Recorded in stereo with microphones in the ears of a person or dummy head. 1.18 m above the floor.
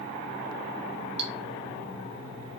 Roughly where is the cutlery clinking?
Right.